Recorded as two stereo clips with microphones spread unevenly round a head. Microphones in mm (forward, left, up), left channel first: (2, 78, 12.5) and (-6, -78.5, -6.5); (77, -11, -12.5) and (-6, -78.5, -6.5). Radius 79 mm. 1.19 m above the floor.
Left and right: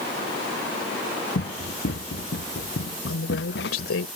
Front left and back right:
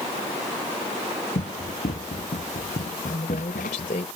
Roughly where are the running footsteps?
Ahead left.